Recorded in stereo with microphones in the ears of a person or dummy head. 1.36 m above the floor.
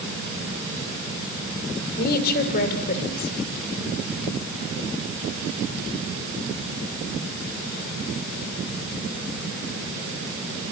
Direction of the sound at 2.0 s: 65° left (ahead or behind).